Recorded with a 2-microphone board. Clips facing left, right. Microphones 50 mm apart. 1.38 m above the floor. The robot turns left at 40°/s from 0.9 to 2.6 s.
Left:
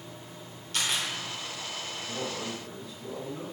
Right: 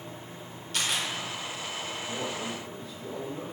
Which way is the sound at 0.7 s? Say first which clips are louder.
Even; centre (ahead or behind).